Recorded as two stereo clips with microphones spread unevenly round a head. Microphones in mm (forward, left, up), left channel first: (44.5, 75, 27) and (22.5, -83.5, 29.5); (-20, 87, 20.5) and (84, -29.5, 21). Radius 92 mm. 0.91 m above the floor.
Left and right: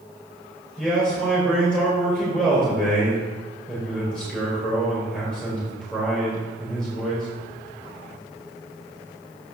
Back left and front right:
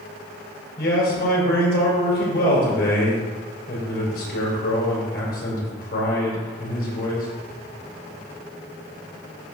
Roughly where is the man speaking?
Behind.